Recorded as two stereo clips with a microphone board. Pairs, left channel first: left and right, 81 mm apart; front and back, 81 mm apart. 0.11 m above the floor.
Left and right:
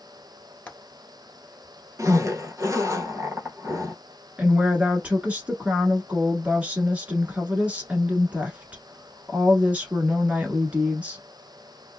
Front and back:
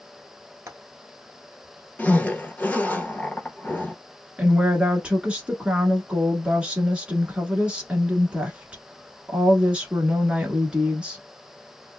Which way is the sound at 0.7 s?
150° left.